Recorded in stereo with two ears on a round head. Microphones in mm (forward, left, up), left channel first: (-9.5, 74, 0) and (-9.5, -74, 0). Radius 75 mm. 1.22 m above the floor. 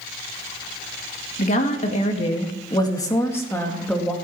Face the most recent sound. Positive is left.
turn(degrees=5)  # may be behind; listen again after turning